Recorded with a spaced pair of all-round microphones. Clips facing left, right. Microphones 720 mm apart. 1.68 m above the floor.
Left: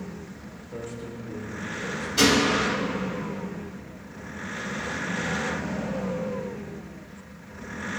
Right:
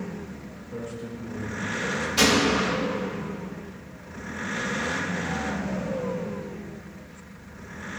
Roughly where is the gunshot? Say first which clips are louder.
Left 1 dB; right.